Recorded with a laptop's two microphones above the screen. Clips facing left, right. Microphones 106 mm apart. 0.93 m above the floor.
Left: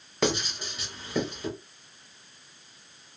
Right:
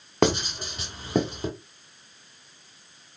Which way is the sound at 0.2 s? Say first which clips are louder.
Right 5 dB; 55° right (ahead or behind).